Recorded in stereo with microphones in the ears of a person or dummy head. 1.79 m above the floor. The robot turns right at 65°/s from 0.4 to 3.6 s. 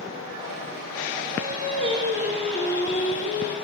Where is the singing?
70° right, 1.3 m; by 3.5 s 75° left, 1.3 m.